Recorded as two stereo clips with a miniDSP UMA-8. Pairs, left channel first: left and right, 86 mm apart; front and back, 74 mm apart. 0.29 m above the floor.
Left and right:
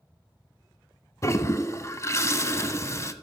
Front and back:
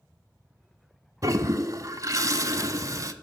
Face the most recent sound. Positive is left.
turn(degrees=140)